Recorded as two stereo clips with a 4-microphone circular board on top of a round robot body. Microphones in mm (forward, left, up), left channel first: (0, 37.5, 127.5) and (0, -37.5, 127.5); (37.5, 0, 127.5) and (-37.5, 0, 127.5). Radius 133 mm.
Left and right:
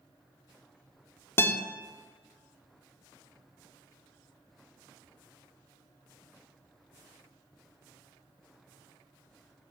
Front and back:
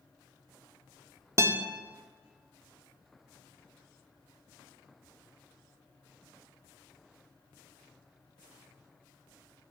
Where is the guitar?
140° left, 0.5 m.